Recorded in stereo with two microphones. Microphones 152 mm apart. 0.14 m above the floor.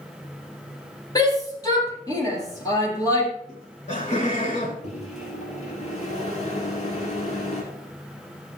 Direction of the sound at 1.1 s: 25° left (ahead or behind).